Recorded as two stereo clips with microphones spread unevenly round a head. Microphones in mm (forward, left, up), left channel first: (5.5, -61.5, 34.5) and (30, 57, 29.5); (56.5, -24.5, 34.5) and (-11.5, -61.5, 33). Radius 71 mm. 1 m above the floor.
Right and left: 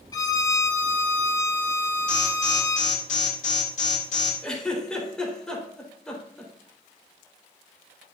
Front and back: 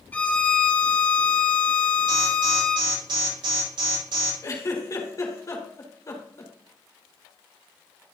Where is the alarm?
135° right, 7 m.